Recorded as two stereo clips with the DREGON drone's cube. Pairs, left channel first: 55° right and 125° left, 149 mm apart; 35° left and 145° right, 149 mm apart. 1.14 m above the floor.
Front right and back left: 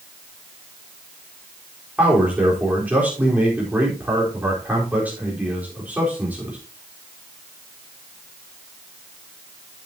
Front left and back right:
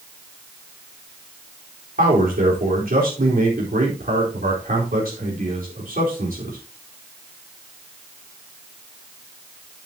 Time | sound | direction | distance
2.0 | a man speaking | 155° right | 4 m